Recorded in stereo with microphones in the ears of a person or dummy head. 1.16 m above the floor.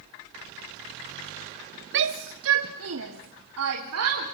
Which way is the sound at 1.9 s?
60° right (ahead or behind).